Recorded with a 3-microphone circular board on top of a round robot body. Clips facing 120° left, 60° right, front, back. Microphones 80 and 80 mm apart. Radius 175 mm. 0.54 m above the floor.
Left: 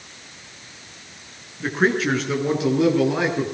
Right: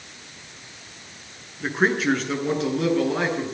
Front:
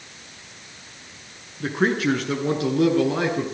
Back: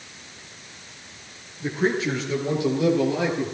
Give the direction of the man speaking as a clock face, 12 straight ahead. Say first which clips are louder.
Left 1 dB, front 2 dB; 11 o'clock.